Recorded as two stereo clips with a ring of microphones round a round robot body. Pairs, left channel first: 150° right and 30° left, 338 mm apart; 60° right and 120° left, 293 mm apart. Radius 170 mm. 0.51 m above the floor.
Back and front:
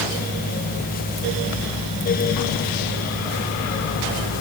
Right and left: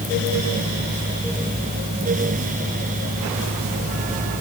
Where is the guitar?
No guitar in this recording.